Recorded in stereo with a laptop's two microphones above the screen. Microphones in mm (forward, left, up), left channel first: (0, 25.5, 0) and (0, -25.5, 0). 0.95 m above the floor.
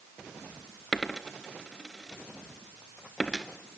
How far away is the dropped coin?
About 1.4 m.